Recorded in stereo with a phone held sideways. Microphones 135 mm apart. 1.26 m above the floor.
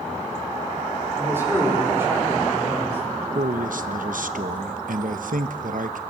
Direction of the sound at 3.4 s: 80° right.